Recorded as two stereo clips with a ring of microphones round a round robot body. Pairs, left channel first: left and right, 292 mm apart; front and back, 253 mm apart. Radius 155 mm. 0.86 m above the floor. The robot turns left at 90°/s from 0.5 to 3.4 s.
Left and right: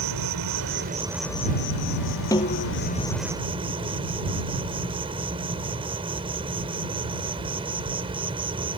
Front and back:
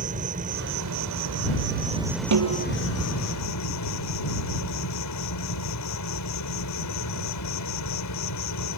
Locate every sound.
0.0 s an insect: 115° right; by 8.8 s 15° right
2.3 s a snare drum: 170° left; by 2.7 s 130° left